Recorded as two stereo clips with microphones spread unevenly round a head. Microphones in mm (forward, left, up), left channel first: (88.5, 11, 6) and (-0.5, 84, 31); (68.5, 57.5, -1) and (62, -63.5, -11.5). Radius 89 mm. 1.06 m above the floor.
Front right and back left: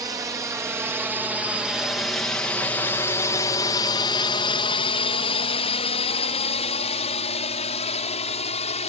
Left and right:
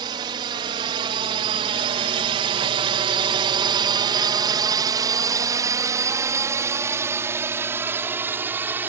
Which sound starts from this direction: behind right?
A drone, at 0.0 s.